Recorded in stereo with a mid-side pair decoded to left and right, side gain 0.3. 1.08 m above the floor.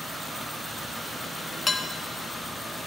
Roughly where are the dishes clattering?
Ahead left.